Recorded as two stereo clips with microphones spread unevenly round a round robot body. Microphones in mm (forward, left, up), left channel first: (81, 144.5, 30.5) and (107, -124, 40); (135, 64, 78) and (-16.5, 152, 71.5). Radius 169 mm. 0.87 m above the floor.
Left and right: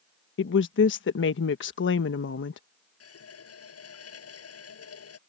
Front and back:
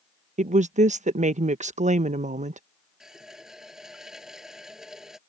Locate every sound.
0.4 s a woman speaking: 120° left
3.0 s a running tap: 65° left